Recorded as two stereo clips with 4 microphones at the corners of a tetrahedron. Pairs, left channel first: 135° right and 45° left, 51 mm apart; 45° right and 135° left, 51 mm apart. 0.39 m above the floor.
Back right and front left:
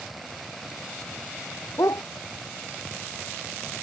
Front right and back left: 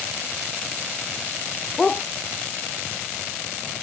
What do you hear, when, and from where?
1.8 s a dog barking: 125° right